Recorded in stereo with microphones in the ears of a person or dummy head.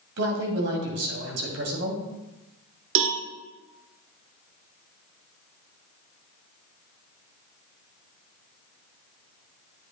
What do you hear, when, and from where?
0.2 s a man speaking: 65° right (ahead or behind), 2.5 m
3.0 s a cowbell: 60° right (ahead or behind), 1.0 m